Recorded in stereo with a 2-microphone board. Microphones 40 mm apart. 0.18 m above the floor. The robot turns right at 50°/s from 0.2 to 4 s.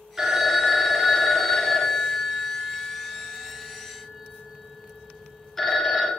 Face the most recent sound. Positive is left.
turn(degrees=5)  # may be behind; listen again after turning